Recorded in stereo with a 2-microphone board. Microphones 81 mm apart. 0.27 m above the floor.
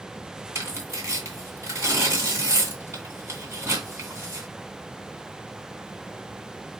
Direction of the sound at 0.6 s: 30° right (ahead or behind).